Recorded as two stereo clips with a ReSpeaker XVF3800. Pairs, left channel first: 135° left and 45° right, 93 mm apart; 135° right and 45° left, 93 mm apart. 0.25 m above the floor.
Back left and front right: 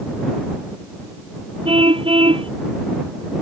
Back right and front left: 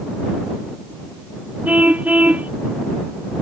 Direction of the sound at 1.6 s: 30° right.